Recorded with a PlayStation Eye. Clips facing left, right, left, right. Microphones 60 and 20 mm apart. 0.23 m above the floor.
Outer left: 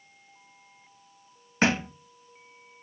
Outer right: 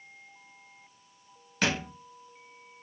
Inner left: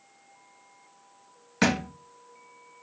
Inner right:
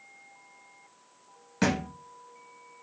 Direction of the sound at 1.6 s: 30° left (ahead or behind).